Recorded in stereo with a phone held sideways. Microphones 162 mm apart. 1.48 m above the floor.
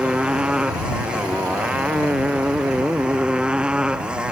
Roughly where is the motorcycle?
Centre.